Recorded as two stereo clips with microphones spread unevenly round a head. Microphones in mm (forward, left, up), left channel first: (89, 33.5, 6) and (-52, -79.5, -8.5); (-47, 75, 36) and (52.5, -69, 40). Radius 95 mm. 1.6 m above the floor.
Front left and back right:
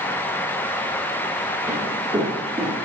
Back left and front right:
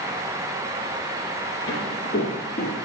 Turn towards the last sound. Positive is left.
turn(degrees=160)